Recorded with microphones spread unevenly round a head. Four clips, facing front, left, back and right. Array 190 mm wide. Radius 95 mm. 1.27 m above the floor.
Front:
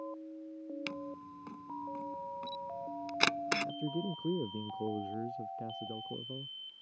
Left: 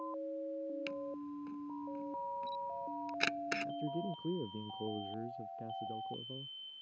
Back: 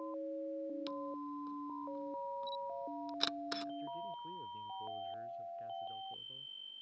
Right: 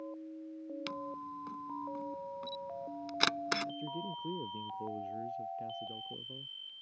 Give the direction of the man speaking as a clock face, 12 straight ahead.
12 o'clock.